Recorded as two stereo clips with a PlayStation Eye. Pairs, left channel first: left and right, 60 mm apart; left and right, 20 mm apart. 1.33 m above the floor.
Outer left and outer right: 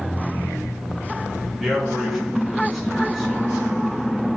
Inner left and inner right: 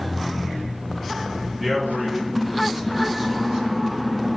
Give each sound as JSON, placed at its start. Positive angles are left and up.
{"t": 1.6, "sound": "a man speaking", "side_deg": 0, "distance_m": 3.0}